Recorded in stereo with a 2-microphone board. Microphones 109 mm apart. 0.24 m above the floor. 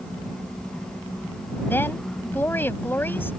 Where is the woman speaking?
20° left (ahead or behind).